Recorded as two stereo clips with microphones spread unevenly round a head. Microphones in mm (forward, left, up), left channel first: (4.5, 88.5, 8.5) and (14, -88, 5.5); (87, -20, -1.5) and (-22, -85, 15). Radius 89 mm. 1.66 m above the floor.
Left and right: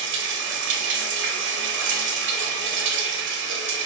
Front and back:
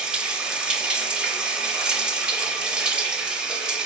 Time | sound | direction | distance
0.0 | running water | 70° right | 0.7 m